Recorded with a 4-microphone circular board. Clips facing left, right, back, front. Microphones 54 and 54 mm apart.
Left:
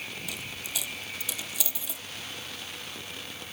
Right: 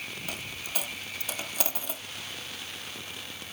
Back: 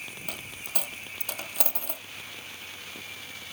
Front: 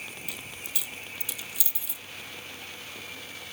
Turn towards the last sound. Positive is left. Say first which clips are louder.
# right 1 dB, back 2 dB
turn(degrees=-135)